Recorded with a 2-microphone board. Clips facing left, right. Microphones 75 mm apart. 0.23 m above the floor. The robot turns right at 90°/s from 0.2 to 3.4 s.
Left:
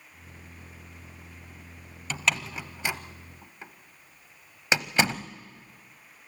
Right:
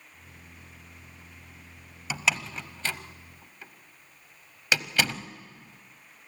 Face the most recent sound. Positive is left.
turn(degrees=25)  # may be behind; listen again after turning